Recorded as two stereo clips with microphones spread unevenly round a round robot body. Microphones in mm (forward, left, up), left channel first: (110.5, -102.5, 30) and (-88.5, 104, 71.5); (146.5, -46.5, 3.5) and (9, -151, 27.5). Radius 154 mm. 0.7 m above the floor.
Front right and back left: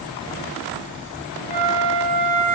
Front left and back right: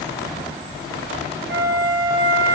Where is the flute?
120° right, 0.9 m.